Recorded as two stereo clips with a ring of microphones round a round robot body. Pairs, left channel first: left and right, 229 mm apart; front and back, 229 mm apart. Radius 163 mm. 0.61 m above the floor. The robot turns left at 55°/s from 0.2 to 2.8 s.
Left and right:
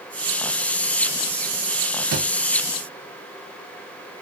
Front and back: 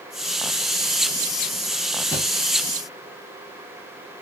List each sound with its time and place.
2.1 s a thud: 95° right, 1.4 m; by 2.3 s 105° right, 1.4 m